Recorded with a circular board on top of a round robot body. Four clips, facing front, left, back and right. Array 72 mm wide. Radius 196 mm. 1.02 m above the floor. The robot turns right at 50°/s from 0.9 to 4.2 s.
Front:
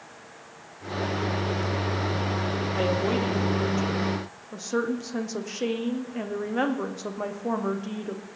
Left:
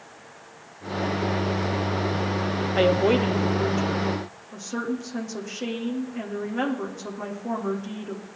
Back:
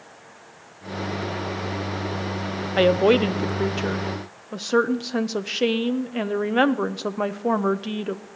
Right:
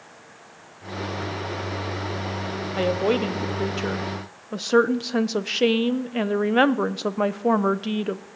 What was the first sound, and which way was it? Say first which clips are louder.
A woman speaking: left 2 dB, back 10 dB; 165° left.